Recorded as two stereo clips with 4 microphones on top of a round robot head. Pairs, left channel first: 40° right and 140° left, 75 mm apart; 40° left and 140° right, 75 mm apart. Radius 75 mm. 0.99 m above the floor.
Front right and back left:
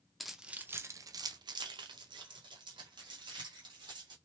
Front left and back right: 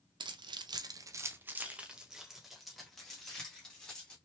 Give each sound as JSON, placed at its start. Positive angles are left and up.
{"t": 0.2, "sound": "keys jangling", "azimuth_deg": -130, "distance_m": 0.5}